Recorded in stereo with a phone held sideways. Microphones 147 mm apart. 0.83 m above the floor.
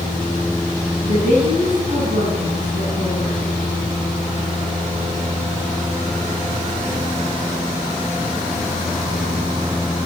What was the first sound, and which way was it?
A woman speaking, 55° right (ahead or behind).